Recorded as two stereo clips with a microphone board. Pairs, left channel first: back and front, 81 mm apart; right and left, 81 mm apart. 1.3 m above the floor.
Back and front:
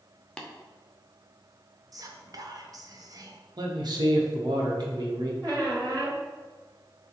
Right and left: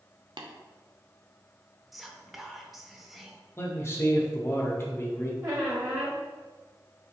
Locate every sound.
0.4 s tapping: 100° left, 0.5 m
1.9 s whispering: 5° left, 0.6 m
3.6 s a man speaking: 30° right, 0.9 m
5.4 s a squeak: 45° left, 1.9 m